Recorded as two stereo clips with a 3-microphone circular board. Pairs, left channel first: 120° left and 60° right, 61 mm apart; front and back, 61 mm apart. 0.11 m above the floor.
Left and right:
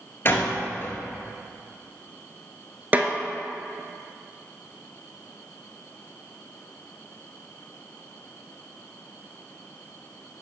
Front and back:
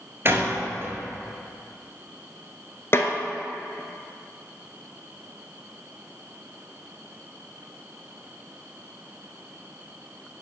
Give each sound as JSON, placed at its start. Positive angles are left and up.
{"t": 0.2, "sound": "a door slam", "azimuth_deg": 150, "distance_m": 1.4}
{"t": 2.9, "sound": "a snare drum", "azimuth_deg": -15, "distance_m": 1.0}